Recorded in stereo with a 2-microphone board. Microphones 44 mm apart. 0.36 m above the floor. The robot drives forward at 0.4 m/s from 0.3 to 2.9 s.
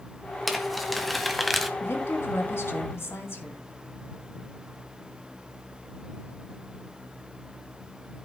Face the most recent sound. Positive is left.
turn(degrees=70)  # may be behind; listen again after turning